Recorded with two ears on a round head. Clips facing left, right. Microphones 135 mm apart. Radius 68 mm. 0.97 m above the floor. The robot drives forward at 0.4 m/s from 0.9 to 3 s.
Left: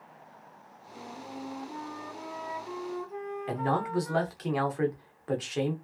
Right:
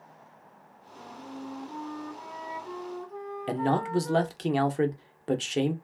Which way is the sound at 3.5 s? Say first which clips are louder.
Right 3 dB; 30° right (ahead or behind).